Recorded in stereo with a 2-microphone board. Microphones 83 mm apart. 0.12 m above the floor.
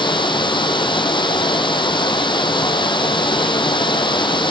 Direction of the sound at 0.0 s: 75° left (ahead or behind).